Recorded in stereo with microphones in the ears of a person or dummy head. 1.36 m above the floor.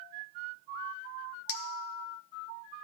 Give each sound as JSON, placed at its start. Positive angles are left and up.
{"t": 1.5, "sound": "a clink", "side_deg": 60, "distance_m": 0.6}